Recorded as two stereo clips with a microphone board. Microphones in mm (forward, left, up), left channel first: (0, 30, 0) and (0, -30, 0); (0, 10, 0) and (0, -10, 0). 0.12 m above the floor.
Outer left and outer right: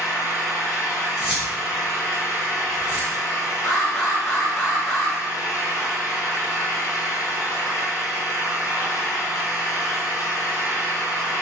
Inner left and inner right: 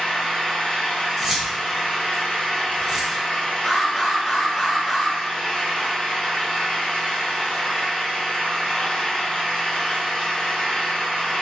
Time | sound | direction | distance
0.0 | an engine running | 55° left (ahead or behind) | 0.9 m
1.2 | keys jangling | 15° right (ahead or behind) | 1.5 m
3.6 | an alarm | 5° right (ahead or behind) | 1.9 m